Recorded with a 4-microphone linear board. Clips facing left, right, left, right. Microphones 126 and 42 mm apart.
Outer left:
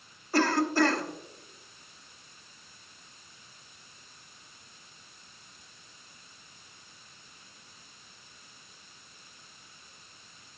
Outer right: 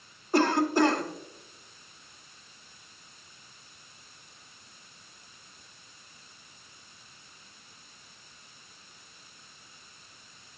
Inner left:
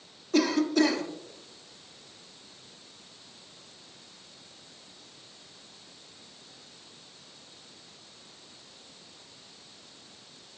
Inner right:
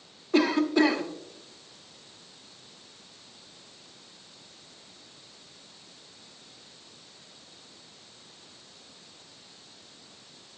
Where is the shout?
I don't hear a shout.